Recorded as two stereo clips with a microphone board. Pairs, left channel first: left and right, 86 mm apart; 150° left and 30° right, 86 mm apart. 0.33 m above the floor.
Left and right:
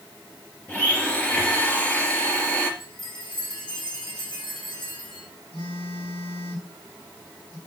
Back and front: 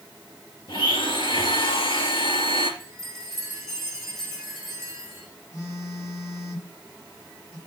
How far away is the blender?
About 3 m.